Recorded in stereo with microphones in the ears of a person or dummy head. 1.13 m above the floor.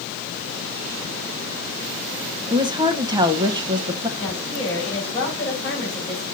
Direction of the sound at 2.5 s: 20° right (ahead or behind).